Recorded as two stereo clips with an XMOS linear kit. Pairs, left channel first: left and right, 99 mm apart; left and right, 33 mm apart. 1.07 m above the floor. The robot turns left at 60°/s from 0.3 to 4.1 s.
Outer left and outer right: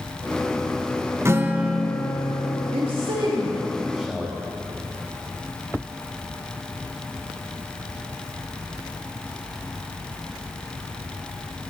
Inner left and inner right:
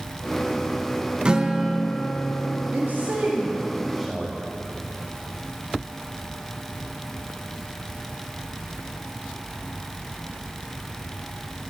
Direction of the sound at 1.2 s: 150° right.